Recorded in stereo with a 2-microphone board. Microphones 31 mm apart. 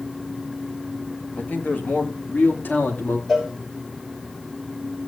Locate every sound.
1.4 s a man speaking: 65° left (ahead or behind), 2.5 m; by 3.2 s 70° left (ahead or behind), 3 m
3.3 s a cowbell: centre (ahead or behind), 5.5 m